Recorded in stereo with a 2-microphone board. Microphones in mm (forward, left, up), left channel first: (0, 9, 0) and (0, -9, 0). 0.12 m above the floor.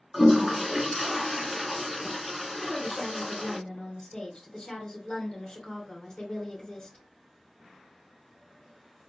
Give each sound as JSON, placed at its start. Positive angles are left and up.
{"t": 0.1, "sound": "a toilet flushing", "side_deg": -10, "distance_m": 0.5}
{"t": 2.6, "sound": "a woman speaking", "side_deg": 30, "distance_m": 2.5}